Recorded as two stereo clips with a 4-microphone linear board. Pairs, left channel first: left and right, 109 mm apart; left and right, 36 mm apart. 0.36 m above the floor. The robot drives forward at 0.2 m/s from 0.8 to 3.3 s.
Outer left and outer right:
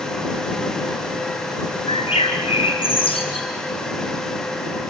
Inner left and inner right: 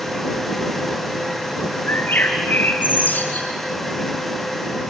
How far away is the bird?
About 3 m.